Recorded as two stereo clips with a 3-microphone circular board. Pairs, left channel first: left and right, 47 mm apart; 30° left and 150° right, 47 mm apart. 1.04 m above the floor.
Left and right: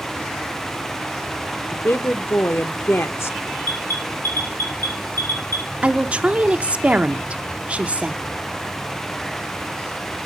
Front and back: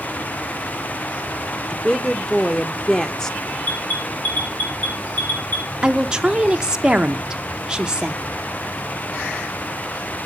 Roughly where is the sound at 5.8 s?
Right.